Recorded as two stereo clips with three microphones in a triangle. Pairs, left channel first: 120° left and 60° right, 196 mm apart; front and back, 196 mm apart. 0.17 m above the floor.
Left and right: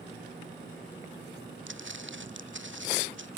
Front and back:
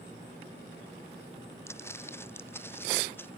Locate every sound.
1.7 s footsteps: 75° right; by 3.3 s 80° right